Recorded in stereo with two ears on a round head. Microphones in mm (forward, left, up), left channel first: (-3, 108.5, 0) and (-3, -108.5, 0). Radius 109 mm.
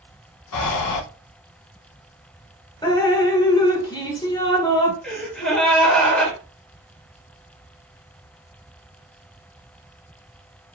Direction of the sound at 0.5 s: 85° left.